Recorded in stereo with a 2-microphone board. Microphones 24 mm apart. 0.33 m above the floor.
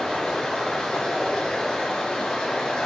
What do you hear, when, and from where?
0.0 s running water: 35° left (ahead or behind), 4.5 m